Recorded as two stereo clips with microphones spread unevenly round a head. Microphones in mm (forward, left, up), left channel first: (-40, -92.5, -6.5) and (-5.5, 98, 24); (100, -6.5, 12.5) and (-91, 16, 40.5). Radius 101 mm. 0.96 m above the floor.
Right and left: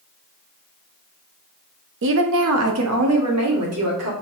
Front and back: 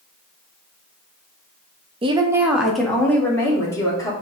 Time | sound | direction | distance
2.0 | a woman speaking | 110° left | 0.6 m